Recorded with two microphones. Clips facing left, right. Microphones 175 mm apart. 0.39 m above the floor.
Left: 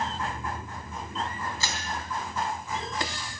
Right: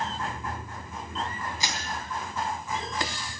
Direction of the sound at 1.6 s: 20° right (ahead or behind).